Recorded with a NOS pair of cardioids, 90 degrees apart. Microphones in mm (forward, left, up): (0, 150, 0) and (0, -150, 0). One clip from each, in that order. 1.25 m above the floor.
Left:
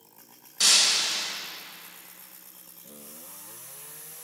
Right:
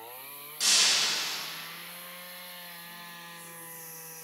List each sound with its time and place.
0.6 s breaking glass: 50° left, 3.5 m